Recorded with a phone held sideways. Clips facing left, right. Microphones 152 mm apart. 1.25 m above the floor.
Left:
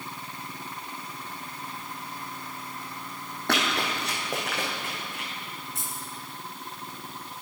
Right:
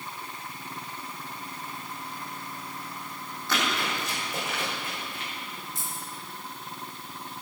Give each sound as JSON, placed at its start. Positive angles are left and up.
{"t": 3.5, "sound": "running footsteps", "side_deg": 70, "distance_m": 3.5}
{"t": 5.8, "sound": "keys jangling", "side_deg": 75, "distance_m": 4.0}